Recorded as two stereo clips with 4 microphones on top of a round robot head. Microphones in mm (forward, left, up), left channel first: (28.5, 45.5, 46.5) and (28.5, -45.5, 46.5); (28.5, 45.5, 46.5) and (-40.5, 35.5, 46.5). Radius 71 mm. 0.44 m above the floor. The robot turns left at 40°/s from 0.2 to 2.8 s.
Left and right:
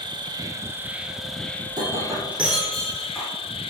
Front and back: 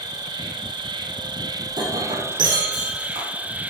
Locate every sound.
0.0 s an insect: 135° right, 1.6 m; by 3.7 s 120° left, 1.6 m
1.7 s breaking glass: 140° right, 4.5 m; by 3.3 s 175° left, 4.5 m